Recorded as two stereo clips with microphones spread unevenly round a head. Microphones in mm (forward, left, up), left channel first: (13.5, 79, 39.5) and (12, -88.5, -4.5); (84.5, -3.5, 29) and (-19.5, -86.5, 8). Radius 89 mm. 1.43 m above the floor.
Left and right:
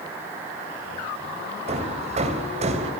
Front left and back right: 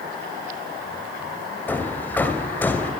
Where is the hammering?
35° right, 3 m.